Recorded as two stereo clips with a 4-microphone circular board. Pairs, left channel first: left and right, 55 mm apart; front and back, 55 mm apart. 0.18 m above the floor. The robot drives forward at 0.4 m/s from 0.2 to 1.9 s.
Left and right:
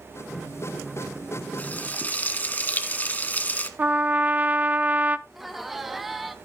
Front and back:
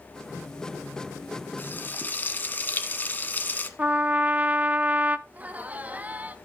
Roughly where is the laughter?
Behind.